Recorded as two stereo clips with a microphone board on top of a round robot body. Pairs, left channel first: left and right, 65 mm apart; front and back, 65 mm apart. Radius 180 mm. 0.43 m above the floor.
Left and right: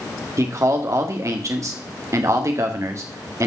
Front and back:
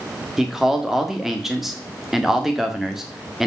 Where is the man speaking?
95° right, 1.8 m.